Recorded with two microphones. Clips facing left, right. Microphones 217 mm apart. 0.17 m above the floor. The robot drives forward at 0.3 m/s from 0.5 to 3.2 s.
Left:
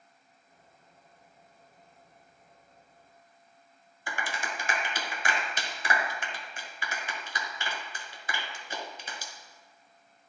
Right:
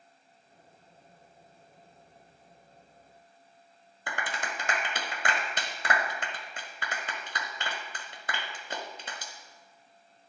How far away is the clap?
About 1.5 m.